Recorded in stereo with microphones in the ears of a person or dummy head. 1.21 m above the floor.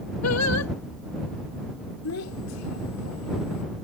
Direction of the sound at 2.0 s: 90° left.